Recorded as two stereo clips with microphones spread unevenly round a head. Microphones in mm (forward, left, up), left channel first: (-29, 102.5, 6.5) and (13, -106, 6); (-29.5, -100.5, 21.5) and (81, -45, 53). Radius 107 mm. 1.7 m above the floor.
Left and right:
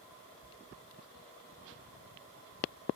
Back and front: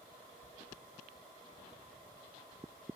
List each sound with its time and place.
0.4 s chewing: 80° left, 7 m